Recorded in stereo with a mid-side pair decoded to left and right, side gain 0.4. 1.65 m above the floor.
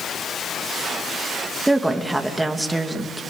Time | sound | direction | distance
1.7 | a woman speaking | 15° right | 2.5 m